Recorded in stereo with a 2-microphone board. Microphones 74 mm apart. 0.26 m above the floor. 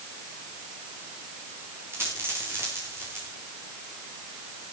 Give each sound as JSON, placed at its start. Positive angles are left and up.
{"t": 1.9, "sound": "a dropped coin", "side_deg": -35, "distance_m": 9.5}